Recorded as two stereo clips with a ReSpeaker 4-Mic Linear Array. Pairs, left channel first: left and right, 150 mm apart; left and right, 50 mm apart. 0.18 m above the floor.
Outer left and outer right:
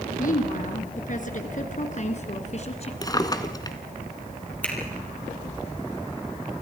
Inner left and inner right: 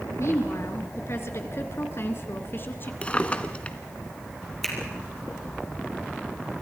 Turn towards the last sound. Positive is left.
turn(degrees=10)  # may be behind; listen again after turning